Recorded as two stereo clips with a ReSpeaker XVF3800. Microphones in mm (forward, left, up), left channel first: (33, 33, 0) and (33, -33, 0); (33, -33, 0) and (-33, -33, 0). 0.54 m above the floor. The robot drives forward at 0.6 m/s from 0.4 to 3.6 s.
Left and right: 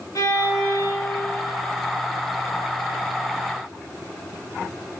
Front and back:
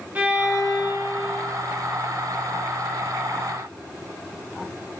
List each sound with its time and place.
0.1 s a violin: 120° left, 3.5 m; by 1.5 s 125° left, 4 m